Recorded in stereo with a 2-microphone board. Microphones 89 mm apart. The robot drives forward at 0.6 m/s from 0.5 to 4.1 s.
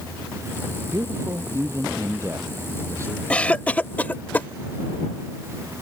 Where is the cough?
15° left (ahead or behind); by 4.5 s 20° left (ahead or behind).